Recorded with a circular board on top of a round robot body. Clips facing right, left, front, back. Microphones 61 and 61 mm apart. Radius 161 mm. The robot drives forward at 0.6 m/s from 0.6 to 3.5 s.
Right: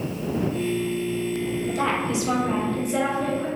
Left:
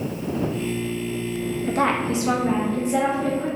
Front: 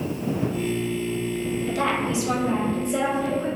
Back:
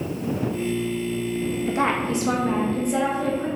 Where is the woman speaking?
120° left, 0.7 m; by 3.5 s 160° left, 1.5 m.